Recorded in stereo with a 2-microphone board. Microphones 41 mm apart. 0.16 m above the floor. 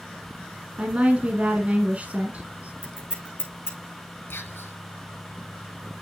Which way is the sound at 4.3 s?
60° left (ahead or behind).